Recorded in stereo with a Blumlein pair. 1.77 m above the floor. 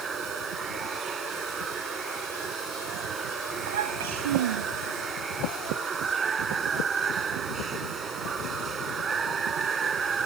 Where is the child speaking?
60° right.